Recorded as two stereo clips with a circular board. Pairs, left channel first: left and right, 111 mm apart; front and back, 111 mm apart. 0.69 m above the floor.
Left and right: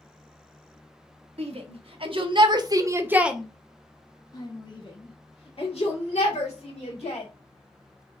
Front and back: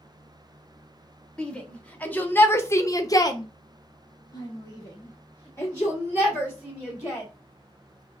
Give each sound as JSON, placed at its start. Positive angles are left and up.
{"t": 1.4, "sound": "a shout", "azimuth_deg": -80, "distance_m": 1.3}